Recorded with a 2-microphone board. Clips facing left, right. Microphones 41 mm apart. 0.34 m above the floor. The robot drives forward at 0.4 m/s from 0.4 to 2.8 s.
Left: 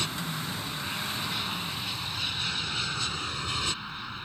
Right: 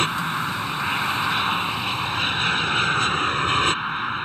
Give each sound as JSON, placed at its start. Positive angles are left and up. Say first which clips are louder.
{"t": 0.0, "sound": "an aircraft", "louder": "right 10 dB", "side_deg": -40}